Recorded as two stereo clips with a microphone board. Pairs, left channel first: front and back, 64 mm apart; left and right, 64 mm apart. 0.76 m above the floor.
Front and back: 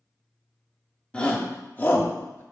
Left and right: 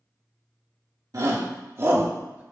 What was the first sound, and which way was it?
A shout, 70° right.